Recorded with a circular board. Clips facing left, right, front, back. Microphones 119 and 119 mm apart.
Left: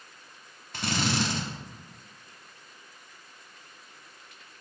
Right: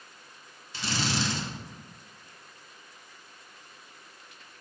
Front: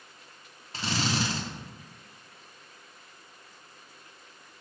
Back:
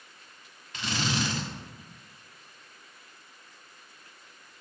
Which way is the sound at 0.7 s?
55° left.